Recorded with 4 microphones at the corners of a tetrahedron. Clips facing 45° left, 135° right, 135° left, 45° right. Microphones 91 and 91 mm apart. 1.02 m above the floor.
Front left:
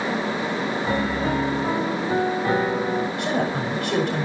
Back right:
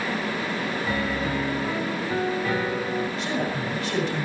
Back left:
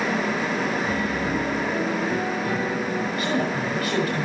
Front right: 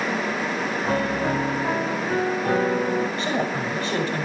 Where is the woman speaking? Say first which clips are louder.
Front left 3 dB, even; 15° left, 5.5 m.